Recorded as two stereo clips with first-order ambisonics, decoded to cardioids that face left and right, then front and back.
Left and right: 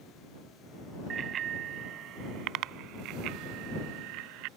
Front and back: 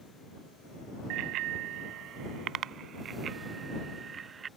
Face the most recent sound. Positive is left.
turn(degrees=-110)